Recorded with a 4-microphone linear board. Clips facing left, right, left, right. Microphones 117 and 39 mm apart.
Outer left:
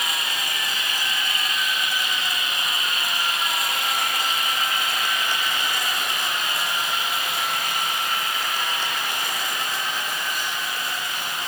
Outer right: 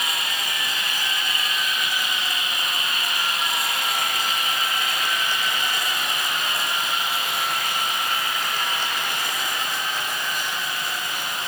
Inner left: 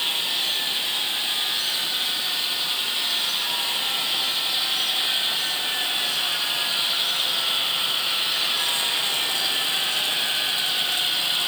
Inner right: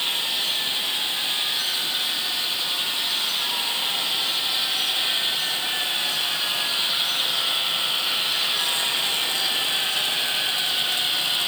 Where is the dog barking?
I don't hear a dog barking.